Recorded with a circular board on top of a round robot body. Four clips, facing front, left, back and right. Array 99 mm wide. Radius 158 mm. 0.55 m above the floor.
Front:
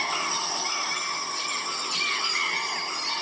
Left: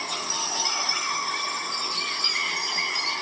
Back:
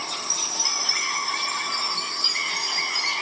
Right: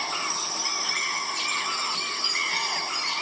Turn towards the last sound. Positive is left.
turn(degrees=165)